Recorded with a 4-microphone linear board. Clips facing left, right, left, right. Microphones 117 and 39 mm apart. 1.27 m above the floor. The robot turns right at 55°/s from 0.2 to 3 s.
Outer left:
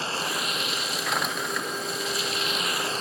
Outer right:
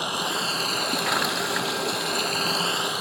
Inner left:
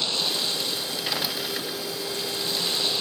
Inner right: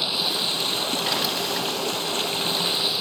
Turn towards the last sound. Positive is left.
turn(degrees=-10)